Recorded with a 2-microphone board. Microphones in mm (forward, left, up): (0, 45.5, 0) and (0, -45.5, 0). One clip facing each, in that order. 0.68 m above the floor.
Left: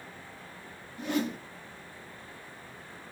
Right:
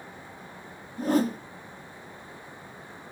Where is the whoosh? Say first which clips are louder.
Right 6 dB; 40° right (ahead or behind), 1.0 m.